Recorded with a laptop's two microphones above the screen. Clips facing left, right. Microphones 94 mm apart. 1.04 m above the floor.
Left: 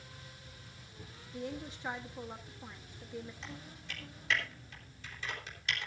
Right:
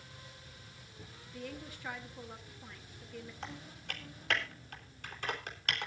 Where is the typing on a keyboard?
60° right (ahead or behind), 3.5 m.